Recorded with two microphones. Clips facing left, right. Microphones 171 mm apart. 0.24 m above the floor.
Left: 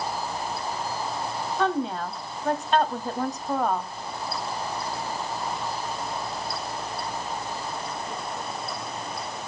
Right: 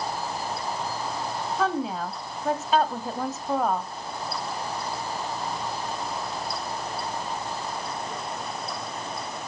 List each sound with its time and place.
1.6 s a woman speaking: 5° right (ahead or behind), 1.4 m